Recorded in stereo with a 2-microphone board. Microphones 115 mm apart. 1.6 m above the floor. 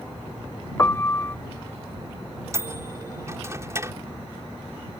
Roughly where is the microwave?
Right.